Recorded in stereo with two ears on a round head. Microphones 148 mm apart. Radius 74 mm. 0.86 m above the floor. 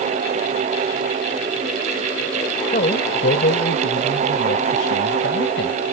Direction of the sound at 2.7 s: 50° left (ahead or behind).